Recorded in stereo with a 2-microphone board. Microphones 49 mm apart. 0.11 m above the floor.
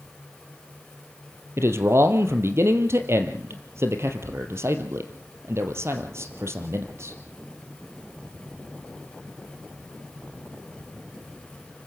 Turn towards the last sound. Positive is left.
turn(degrees=-60)  # may be behind; listen again after turning